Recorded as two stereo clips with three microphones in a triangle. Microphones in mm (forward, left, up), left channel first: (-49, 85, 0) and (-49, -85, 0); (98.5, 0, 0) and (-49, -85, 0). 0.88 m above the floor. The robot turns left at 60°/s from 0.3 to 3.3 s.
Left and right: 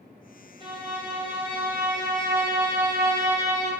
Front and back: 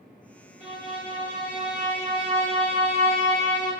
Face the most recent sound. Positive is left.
turn(degrees=-130)